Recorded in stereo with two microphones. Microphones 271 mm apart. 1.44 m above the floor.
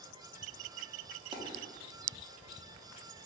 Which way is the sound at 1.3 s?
20° right (ahead or behind).